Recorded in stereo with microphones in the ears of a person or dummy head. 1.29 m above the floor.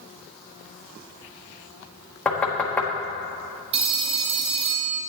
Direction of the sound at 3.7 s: 30° right (ahead or behind).